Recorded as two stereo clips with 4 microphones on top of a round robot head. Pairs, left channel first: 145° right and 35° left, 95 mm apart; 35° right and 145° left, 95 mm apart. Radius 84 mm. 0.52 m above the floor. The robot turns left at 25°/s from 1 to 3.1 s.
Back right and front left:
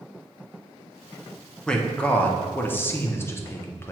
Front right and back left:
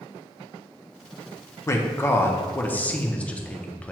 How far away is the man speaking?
About 0.7 m.